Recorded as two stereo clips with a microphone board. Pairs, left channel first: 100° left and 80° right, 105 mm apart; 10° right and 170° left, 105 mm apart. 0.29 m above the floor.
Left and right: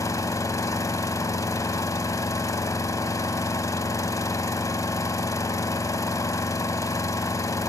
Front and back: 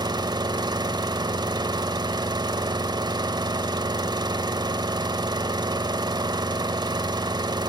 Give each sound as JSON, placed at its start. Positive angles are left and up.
{"t": 0.0, "sound": "an engine running", "azimuth_deg": 140, "distance_m": 0.8}